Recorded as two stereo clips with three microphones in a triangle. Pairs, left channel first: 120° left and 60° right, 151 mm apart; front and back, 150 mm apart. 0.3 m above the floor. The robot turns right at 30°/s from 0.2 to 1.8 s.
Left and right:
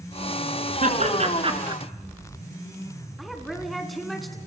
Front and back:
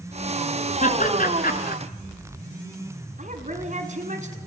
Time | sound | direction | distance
0.8 | laughter | 30° right | 4 m
3.2 | a woman speaking | 150° right | 3 m